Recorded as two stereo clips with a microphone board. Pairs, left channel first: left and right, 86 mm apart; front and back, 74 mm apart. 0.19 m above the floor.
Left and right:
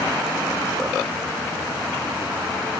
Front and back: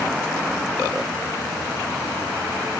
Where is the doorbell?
I don't hear a doorbell.